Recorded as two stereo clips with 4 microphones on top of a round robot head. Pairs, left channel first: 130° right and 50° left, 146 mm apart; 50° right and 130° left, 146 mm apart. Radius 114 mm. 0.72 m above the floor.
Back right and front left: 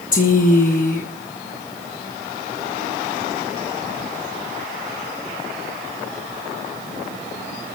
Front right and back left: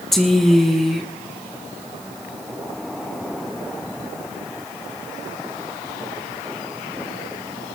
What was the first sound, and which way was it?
A woman speaking, 135° right.